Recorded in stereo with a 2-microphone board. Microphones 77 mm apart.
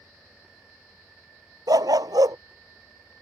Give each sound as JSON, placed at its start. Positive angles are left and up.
{"t": 1.7, "sound": "a dog barking", "side_deg": -60}